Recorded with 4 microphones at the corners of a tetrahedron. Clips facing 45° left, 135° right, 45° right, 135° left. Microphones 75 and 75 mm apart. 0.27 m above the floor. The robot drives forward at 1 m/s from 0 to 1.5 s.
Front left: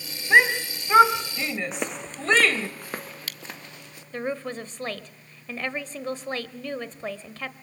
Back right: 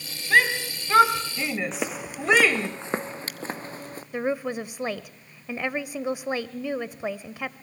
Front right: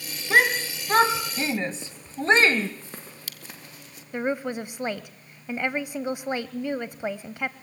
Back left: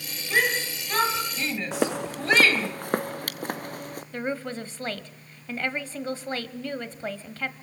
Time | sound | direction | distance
0.3 | a shout | 20° right | 2.0 m
1.7 | footsteps | 135° left | 0.8 m
4.1 | a woman speaking | 80° right | 0.9 m